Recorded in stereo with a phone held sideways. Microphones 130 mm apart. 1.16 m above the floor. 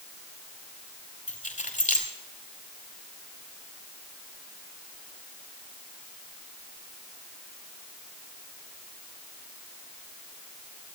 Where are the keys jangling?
75° left (ahead or behind), 2.5 m.